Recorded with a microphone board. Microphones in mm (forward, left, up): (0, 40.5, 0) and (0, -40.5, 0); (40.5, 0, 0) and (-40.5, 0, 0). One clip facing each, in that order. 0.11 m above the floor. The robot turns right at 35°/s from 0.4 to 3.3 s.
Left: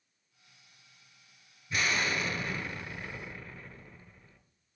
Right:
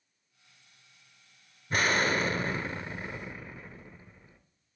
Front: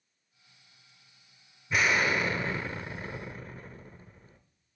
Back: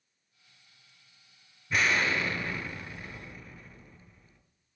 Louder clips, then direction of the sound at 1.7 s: Right 4 dB, front 1 dB; 85° right.